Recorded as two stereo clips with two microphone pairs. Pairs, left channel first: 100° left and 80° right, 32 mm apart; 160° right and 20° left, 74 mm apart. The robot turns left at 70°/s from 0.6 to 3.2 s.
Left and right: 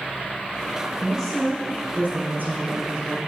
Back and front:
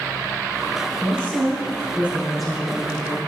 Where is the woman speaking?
30° left, 3 m; by 3.2 s 125° right, 3 m.